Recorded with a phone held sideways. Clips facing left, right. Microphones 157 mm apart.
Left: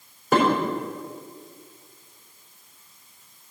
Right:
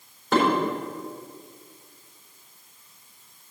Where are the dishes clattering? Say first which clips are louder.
Left 1 dB; 5° left (ahead or behind), 4 m.